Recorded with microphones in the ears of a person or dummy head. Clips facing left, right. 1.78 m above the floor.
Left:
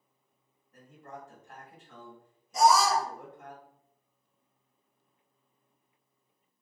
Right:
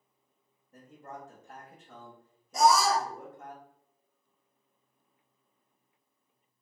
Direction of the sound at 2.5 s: 60° right (ahead or behind).